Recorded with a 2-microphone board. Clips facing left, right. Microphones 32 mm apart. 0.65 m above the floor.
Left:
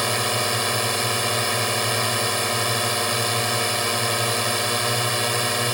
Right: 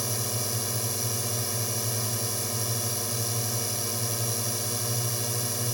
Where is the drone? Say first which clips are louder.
Left 11 dB; 70° left (ahead or behind).